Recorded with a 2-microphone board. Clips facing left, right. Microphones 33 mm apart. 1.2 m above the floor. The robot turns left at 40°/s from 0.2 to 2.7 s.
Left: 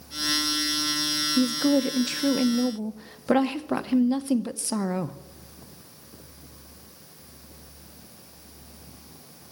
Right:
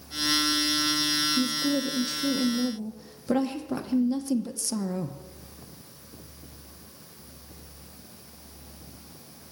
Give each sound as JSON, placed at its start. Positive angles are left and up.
{"t": 1.4, "sound": "a woman speaking", "azimuth_deg": 95, "distance_m": 0.7}